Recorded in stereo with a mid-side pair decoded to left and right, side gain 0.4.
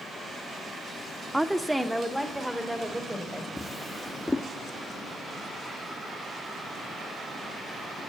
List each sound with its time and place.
1.3 s a woman speaking: 15° right, 1.3 m; by 3.5 s 10° right, 4.5 m
3.6 s a drawer: 10° left, 1.3 m